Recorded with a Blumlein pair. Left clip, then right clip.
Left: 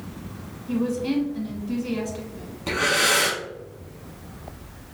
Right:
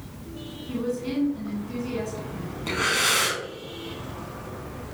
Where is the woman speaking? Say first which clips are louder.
Left 3 dB; 20° left, 1.4 m.